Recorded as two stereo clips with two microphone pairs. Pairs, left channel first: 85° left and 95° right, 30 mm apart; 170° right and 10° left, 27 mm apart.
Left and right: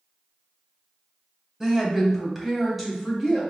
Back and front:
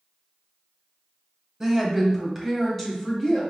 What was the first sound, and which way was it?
A woman speaking, 45° right.